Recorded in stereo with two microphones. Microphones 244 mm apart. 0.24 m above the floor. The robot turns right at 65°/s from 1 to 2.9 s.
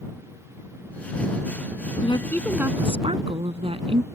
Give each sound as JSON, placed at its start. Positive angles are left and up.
{"t": 2.0, "sound": "a woman speaking", "azimuth_deg": 150}